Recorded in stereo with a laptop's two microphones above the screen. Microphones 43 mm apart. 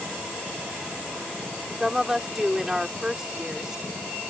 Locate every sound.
1.8 s a woman speaking: 15° right (ahead or behind)